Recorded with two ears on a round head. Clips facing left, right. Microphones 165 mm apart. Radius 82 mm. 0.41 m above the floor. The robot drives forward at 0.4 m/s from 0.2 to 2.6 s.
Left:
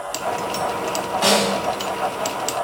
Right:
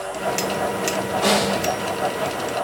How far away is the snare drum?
About 1.7 m.